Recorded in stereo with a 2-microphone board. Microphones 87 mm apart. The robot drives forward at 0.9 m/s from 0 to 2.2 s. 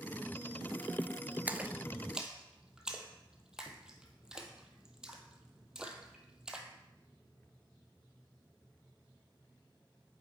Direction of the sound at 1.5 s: 20° right (ahead or behind).